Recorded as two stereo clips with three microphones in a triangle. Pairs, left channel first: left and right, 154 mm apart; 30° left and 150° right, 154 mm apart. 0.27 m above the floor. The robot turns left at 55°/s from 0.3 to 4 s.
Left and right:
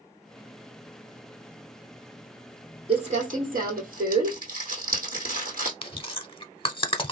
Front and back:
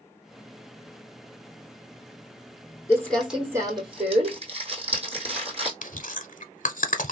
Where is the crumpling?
40° right, 2 m; by 5.7 s 105° right, 2 m.